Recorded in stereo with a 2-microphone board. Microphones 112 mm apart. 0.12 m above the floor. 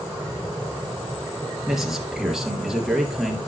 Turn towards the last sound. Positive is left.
turn(degrees=-5)  # may be behind; listen again after turning